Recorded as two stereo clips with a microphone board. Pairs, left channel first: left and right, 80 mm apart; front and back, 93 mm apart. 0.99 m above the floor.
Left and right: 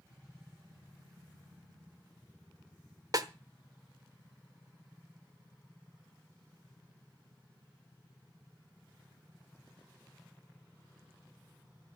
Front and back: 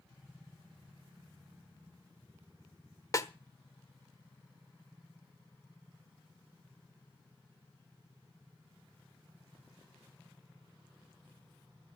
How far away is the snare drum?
About 1.1 m.